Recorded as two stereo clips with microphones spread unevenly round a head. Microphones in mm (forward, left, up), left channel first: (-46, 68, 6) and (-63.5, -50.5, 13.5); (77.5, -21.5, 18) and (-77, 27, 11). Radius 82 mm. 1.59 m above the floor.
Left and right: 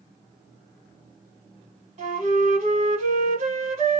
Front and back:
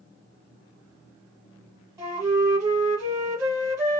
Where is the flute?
125° right, 2 m.